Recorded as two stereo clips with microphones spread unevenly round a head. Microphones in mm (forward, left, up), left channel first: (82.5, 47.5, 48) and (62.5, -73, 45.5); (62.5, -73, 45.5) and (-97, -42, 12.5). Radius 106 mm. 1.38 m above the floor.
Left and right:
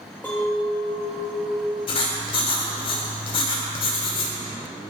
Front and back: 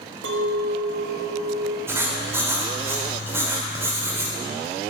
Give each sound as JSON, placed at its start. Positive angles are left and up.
{"t": 0.2, "sound": "a clink", "azimuth_deg": 160, "distance_m": 1.0}
{"t": 1.9, "sound": "writing", "azimuth_deg": 80, "distance_m": 1.2}